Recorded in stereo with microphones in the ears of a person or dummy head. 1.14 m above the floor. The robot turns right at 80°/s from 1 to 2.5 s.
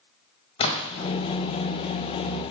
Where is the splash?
30° left (ahead or behind), 1.3 m; by 1.1 s 20° left (ahead or behind), 1.3 m.